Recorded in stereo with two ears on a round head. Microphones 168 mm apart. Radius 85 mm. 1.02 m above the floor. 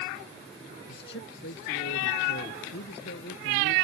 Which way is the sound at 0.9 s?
70° left (ahead or behind).